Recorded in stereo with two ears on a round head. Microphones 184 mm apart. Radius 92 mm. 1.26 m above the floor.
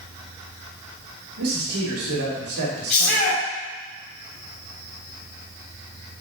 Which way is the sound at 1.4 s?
80° right.